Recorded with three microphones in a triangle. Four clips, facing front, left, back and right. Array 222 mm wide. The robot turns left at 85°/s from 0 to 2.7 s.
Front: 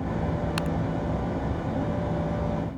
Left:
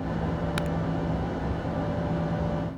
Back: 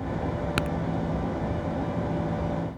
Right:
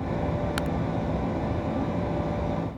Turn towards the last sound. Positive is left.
turn(degrees=0)